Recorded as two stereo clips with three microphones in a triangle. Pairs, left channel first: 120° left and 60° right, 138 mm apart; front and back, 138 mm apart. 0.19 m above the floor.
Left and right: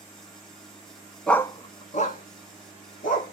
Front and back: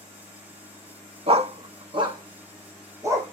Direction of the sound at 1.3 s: 155° right.